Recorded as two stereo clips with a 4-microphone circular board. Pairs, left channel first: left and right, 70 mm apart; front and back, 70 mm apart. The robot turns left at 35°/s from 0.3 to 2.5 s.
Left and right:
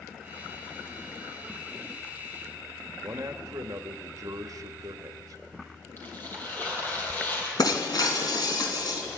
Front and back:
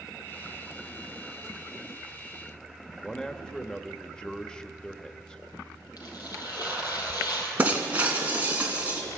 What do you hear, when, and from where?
3.0 s a man speaking: 75° right, 1.1 m
6.0 s tearing paper: 30° left, 6 m
7.6 s breaking glass: 115° left, 2.5 m